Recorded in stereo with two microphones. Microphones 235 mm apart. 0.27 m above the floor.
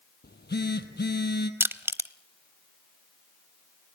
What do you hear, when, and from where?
0.2 s a phone buzzing: 45° left (ahead or behind), 1.4 m
1.6 s crushing: 10° right (ahead or behind), 0.7 m